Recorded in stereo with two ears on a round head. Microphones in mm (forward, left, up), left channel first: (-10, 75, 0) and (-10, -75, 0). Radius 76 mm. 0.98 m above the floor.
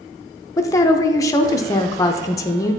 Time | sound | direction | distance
0.6 | a woman speaking | 20° left (ahead or behind) | 0.6 m